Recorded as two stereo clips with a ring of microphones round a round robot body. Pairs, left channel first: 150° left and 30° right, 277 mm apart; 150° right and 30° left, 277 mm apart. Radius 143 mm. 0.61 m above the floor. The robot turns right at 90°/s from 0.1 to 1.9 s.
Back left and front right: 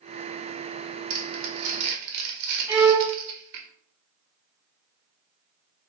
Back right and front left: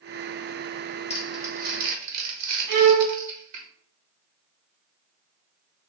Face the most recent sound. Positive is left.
turn(degrees=50)